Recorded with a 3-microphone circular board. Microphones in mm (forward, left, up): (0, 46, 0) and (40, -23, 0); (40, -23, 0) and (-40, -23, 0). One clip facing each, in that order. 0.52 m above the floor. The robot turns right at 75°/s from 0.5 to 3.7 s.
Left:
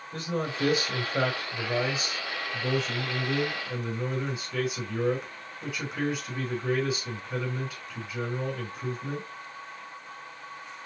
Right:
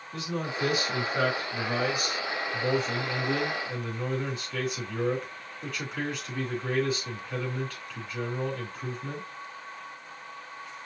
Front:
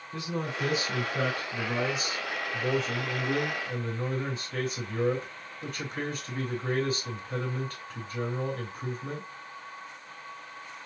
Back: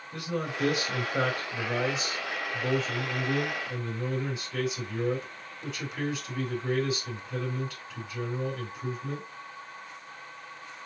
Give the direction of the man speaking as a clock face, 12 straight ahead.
7 o'clock.